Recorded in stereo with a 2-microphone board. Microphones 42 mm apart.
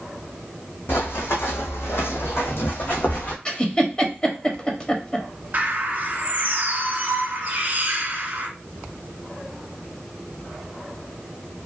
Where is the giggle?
20° left (ahead or behind), 0.6 m.